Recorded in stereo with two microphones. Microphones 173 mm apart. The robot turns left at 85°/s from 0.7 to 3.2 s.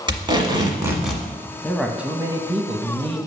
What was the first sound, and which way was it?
Tape being pulled, 150° right.